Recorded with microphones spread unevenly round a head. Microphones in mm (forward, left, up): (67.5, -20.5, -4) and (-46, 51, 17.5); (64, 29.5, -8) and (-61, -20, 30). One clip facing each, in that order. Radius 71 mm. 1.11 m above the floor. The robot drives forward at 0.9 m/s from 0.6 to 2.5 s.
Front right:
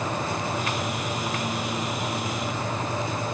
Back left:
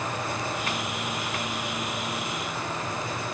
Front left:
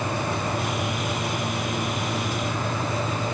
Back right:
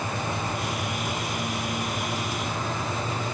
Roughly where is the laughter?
No laughter in this recording.